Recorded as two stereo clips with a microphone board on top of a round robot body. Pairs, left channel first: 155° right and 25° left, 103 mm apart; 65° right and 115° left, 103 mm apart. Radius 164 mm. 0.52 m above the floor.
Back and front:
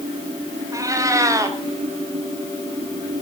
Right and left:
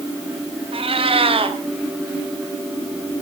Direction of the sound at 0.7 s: 80° left.